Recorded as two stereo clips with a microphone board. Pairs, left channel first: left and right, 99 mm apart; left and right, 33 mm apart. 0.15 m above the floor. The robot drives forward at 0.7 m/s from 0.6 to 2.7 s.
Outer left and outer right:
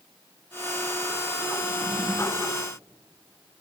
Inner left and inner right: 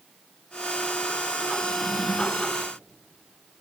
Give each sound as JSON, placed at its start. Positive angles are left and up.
{"t": 1.6, "sound": "a drawer", "side_deg": -25, "distance_m": 2.5}